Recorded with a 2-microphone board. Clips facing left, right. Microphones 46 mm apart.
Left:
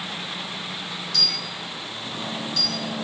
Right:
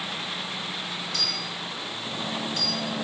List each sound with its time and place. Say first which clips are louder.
1.1 s a dropped coin: left 2 dB; 30° right (ahead or behind), 1.4 m